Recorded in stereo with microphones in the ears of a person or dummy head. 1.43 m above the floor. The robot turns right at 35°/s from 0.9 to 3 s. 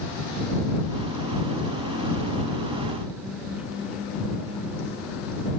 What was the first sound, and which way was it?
Only background noise.